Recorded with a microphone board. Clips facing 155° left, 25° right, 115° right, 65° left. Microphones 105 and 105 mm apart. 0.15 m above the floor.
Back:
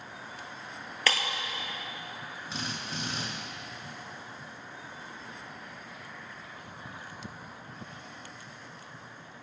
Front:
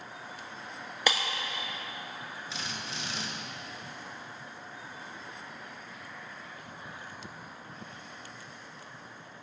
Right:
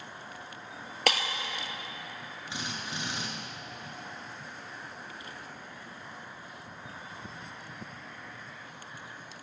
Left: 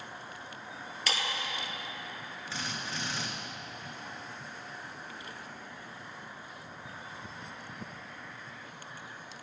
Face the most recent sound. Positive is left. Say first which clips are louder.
# back 4 dB, even
turn(degrees=180)